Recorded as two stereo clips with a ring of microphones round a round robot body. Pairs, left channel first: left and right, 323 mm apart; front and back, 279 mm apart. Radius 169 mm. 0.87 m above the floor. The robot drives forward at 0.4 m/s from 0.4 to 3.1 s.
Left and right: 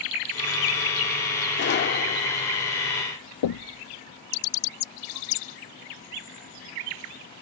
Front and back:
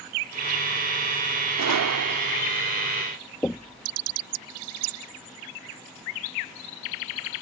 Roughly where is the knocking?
Left.